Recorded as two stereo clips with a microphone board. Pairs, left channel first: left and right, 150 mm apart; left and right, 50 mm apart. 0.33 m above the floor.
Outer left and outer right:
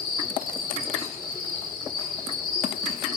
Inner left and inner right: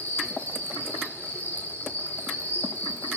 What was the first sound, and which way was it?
An insect, 30° left (ahead or behind).